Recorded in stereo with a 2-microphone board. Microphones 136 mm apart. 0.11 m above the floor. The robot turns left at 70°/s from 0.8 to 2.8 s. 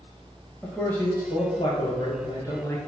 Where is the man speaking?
165° left, 1.3 m; by 2.9 s 25° left, 1.3 m.